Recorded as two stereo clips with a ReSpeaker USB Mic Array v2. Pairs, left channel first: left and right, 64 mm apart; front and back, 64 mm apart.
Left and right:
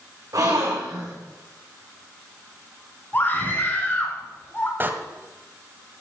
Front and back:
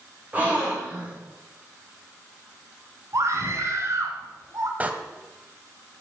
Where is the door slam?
130° right, 1.4 m.